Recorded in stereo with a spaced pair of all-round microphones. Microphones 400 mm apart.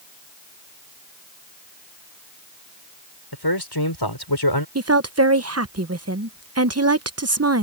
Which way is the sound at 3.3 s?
70° left (ahead or behind).